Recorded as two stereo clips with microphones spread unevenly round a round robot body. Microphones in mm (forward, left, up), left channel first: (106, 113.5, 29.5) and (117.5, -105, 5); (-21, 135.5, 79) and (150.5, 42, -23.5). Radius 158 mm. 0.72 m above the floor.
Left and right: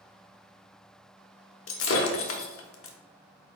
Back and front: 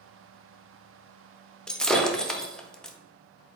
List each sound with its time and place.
1.7 s breaking glass: 70° left, 0.7 m